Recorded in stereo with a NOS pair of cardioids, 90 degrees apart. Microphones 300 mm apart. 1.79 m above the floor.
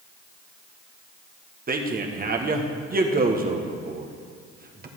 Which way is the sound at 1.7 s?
30° right.